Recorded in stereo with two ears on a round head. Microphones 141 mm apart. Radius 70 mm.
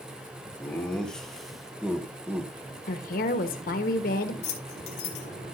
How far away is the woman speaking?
About 1.1 m.